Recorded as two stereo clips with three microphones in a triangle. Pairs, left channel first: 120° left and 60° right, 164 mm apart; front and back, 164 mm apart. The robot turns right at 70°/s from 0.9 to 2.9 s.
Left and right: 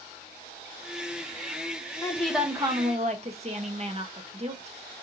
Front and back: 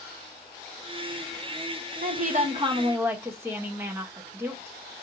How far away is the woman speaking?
About 0.8 m.